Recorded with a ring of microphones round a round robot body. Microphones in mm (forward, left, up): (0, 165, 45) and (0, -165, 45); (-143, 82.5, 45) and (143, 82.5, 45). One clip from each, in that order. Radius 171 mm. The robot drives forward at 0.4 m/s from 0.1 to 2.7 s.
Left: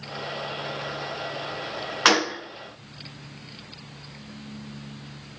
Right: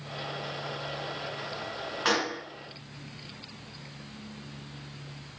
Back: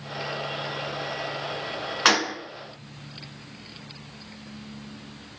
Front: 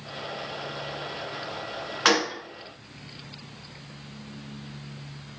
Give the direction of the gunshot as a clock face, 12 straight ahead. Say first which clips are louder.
Left 8 dB, back 1 dB; 9 o'clock.